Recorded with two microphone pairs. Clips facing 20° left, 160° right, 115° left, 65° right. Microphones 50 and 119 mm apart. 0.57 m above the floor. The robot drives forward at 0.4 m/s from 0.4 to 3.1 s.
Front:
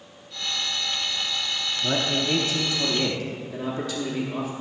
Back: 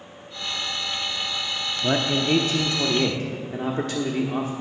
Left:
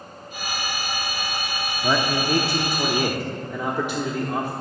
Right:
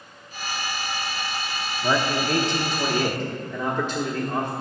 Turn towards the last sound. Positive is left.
turn(degrees=-175)